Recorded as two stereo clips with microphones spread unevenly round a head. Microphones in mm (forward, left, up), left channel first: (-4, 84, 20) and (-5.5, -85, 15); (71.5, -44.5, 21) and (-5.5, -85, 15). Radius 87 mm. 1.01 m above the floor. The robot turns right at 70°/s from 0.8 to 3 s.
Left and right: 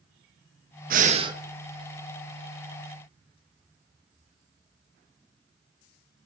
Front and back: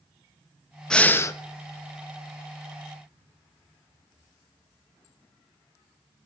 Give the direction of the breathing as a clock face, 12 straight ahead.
2 o'clock.